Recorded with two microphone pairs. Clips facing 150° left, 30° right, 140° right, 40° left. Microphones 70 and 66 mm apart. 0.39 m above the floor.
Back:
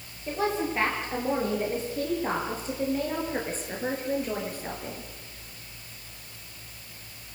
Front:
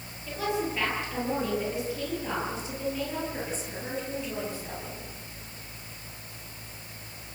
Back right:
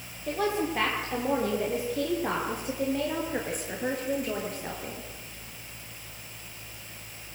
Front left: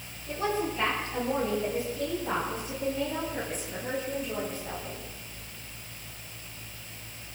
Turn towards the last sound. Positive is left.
turn(degrees=-175)